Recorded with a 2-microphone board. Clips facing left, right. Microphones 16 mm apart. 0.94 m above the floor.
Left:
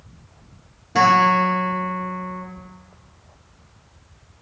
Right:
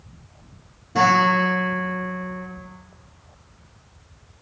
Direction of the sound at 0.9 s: 30° left (ahead or behind).